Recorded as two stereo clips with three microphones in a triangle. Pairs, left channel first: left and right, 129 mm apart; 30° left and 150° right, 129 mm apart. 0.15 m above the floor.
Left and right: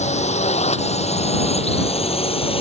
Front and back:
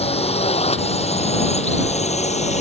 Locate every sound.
0.0 s a drone: 65° left; by 2.6 s 50° left